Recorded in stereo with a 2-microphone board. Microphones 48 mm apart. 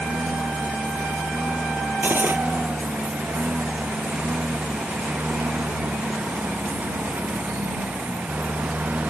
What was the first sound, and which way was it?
A lawn mower, 35° right (ahead or behind).